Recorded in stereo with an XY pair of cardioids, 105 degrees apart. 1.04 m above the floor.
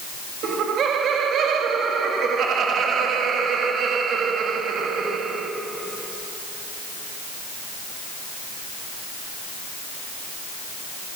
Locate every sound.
0.4 s laughter: 65° right, 1.8 m